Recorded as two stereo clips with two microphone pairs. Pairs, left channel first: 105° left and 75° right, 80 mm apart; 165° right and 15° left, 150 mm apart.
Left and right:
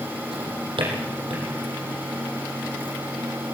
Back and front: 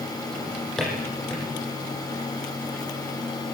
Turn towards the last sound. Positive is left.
turn(degrees=-80)